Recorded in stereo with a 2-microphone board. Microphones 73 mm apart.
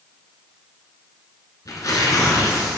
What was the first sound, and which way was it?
Tearing paper, 55° left (ahead or behind).